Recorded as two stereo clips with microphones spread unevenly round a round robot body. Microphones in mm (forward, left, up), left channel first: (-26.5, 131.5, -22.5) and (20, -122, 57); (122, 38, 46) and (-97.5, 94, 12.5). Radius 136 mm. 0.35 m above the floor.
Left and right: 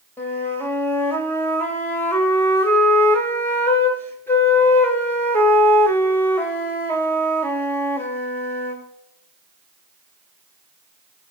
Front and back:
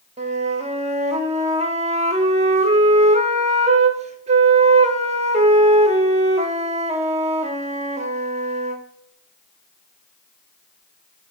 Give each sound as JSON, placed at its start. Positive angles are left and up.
{"t": 0.2, "sound": "a flute", "azimuth_deg": 150, "distance_m": 1.2}